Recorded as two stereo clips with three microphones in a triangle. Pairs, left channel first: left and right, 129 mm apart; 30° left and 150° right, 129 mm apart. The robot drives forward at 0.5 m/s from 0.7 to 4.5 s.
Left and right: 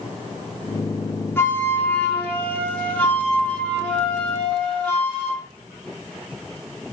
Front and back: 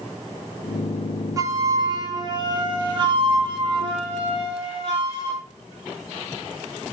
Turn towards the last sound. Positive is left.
turn(degrees=170)